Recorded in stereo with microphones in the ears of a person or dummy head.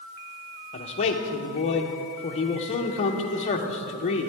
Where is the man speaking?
35° left (ahead or behind), 0.8 m.